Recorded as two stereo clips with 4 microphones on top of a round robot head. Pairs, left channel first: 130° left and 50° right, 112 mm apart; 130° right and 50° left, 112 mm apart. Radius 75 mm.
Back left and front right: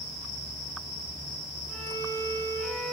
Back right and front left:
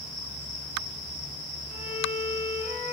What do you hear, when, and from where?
1.7 s a violin: 50° left, 4 m